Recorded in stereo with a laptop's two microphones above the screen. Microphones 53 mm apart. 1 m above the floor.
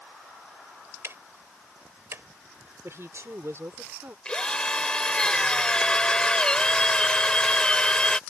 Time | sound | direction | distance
1.0 | ticking | 60° right (ahead or behind) | ?
2.8 | a woman speaking | 55° right (ahead or behind) | ?
4.2 | a drill | 20° left (ahead or behind) | ?